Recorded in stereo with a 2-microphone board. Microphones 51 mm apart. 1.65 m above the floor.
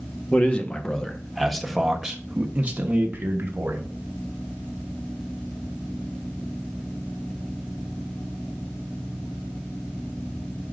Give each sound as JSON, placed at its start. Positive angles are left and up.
{"t": 0.3, "sound": "a man speaking", "side_deg": 30, "distance_m": 1.5}